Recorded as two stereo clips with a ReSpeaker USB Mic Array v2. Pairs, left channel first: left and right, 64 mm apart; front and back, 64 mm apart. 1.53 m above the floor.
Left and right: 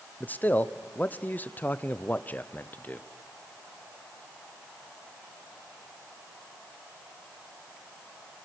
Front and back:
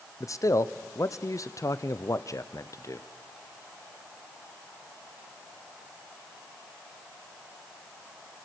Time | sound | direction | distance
0.2 | a man speaking | 30° left | 0.7 m